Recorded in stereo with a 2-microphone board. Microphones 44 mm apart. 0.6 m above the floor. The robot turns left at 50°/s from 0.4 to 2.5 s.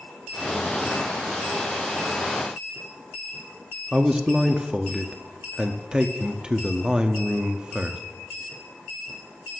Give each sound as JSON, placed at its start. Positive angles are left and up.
{"t": 3.9, "sound": "a man speaking", "side_deg": -20, "distance_m": 0.7}